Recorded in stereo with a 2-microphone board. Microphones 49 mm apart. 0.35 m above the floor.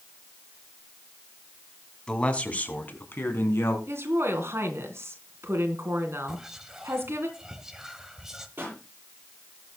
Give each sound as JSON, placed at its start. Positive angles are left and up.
{"t": 2.1, "sound": "a man speaking", "side_deg": 15, "distance_m": 2.5}
{"t": 3.9, "sound": "a woman speaking", "side_deg": -60, "distance_m": 3.0}
{"t": 6.3, "sound": "whispering", "side_deg": -10, "distance_m": 1.3}
{"t": 8.6, "sound": "a pop", "side_deg": -40, "distance_m": 9.5}